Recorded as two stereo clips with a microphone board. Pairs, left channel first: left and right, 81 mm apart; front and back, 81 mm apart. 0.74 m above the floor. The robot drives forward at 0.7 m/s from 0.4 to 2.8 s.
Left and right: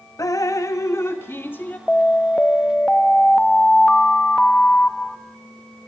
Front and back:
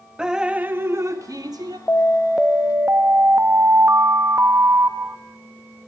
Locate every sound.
0.2 s dripping: 105° left, 0.7 m; by 1.8 s 155° left, 1.3 m
1.9 s an alarm: 25° left, 0.6 m; by 5.2 s 160° left, 0.6 m